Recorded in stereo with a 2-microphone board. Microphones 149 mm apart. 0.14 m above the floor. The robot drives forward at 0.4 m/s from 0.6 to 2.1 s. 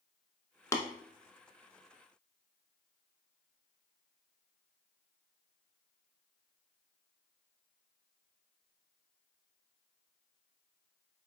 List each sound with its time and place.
0.7 s tapping: 20° left (ahead or behind), 0.7 m